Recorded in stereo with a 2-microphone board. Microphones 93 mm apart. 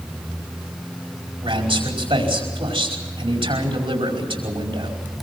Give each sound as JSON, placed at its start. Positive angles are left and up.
{"t": 1.4, "sound": "a man speaking", "side_deg": -80, "distance_m": 5.0}